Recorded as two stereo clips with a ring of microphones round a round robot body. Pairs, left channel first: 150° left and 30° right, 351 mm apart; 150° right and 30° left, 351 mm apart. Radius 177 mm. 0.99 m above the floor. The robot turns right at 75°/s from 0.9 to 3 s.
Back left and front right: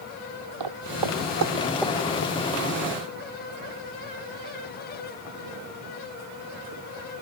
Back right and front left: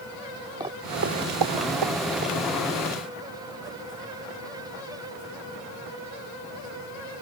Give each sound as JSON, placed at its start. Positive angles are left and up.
{"t": 0.6, "sound": "footsteps", "azimuth_deg": -50}